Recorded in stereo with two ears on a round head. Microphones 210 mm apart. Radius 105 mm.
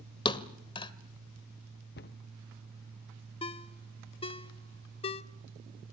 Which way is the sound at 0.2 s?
20° left (ahead or behind).